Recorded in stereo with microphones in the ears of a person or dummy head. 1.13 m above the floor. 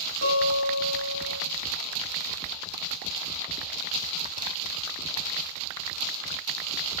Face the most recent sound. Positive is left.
turn(degrees=-85)